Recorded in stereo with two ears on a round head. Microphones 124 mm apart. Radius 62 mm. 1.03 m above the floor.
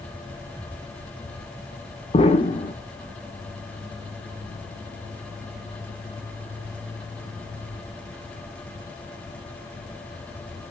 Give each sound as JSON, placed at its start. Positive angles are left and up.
{"t": 2.1, "sound": "an explosion", "side_deg": 40, "distance_m": 1.1}